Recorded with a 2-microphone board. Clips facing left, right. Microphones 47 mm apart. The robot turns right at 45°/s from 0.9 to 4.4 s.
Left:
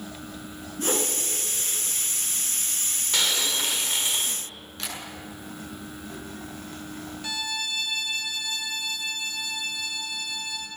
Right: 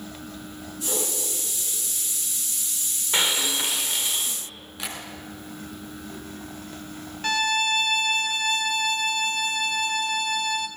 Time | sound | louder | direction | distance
0.8 | a whoosh | left 4 dB | 40° left (ahead or behind) | 4.5 m
3.1 | breaking glass | right 2 dB | 25° right | 2.5 m
4.8 | tapping | right 1 dB | 10° right (ahead or behind) | 7.5 m
7.2 | a violin | right 10 dB | 50° right (ahead or behind) | 1.4 m